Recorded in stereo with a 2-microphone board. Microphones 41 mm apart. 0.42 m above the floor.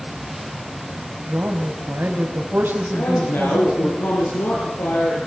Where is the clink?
No clink in this recording.